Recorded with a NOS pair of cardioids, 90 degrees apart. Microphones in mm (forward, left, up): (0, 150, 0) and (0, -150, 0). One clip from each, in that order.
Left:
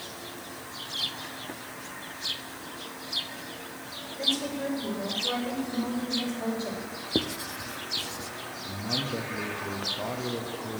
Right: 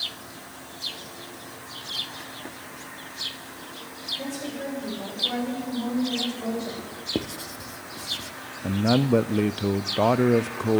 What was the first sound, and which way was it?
A woman speaking, 25° left.